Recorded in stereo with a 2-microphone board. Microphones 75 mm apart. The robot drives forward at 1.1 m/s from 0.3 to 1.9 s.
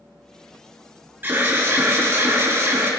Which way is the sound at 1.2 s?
30° right (ahead or behind).